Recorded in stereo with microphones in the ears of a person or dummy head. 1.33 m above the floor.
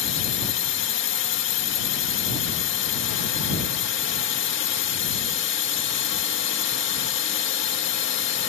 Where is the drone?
65° left (ahead or behind).